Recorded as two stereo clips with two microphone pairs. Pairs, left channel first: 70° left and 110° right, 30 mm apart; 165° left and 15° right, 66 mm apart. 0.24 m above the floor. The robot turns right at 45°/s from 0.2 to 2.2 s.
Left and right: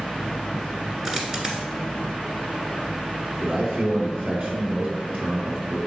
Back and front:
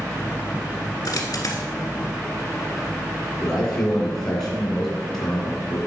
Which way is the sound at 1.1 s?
170° left.